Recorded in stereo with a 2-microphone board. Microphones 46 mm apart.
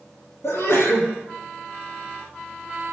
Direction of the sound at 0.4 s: 65° left (ahead or behind).